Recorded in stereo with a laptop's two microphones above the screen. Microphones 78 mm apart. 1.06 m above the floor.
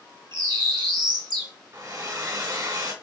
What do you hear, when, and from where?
0.3 s a bird: 65° right (ahead or behind), 1.6 m
1.7 s a hair dryer: 50° right (ahead or behind), 2 m